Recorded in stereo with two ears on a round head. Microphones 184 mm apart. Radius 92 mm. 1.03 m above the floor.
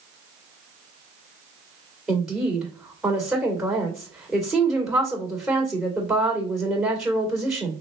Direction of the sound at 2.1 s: 5° right (ahead or behind).